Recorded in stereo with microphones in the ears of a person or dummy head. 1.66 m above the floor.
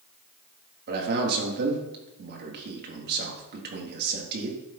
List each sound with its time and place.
0.9 s a man speaking: 60° right (ahead or behind), 3.5 m